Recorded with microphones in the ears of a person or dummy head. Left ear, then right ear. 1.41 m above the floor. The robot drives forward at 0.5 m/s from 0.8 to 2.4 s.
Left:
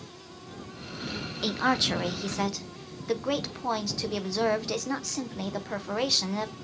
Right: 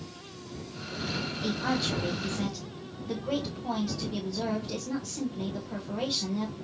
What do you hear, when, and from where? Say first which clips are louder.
1.4 s a woman speaking: left 6 dB; 65° left (ahead or behind), 0.6 m; by 6.5 s 55° left (ahead or behind), 0.7 m